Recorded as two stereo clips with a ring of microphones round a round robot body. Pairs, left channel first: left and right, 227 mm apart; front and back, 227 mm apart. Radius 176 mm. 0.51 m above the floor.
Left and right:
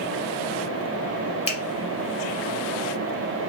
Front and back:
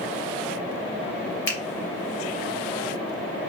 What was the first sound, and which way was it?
A finger snap, 30° left.